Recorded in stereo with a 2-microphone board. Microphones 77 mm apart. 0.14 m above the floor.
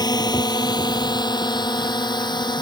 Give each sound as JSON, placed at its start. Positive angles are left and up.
{"t": 0.0, "sound": "a drone", "side_deg": 65}